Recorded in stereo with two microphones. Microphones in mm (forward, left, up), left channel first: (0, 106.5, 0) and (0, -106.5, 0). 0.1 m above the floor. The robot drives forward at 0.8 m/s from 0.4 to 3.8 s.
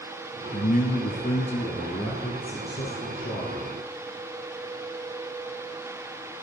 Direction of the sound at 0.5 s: 35° left (ahead or behind).